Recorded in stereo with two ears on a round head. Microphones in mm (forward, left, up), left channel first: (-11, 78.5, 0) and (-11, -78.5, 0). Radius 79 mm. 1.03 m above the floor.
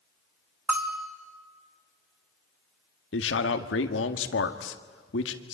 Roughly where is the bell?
Centre.